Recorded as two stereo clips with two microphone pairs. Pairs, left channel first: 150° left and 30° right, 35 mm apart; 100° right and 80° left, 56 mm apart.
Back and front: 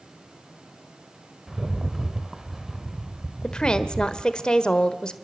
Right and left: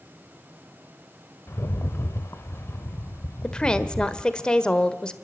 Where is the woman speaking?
160° right, 1.3 m.